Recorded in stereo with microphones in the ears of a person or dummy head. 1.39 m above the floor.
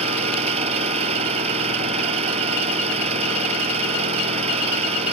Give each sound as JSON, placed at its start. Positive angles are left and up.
{"t": 0.0, "sound": "an engine running", "side_deg": -35}